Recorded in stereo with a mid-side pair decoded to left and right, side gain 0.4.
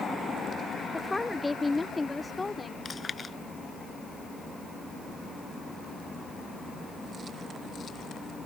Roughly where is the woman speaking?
Ahead.